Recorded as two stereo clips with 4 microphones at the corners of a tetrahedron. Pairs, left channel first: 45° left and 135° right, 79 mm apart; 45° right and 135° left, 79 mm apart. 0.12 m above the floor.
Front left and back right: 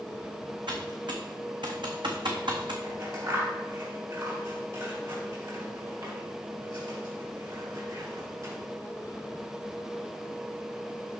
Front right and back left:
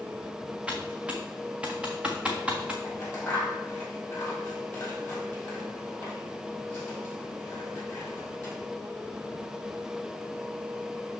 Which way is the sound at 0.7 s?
150° right.